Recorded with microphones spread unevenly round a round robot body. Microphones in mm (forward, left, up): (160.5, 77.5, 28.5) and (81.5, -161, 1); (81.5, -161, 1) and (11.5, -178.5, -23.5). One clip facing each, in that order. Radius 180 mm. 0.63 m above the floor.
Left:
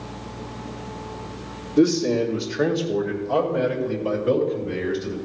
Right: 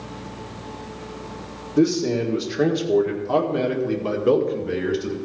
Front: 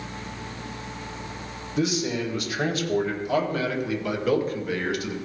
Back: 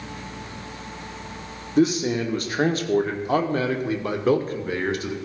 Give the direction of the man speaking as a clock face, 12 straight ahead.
6 o'clock.